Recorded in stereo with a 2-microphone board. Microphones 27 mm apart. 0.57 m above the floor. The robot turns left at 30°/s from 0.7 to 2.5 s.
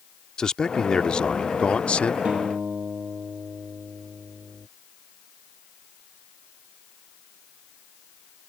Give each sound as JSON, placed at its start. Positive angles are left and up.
{"t": 0.4, "sound": "a man speaking", "azimuth_deg": 145}
{"t": 2.2, "sound": "a guitar", "side_deg": -50}